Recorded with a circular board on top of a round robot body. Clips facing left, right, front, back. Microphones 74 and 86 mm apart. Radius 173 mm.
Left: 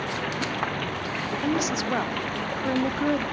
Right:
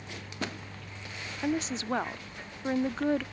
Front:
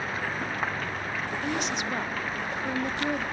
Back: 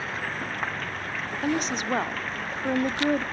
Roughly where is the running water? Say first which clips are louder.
Left 10 dB, front 1 dB; left.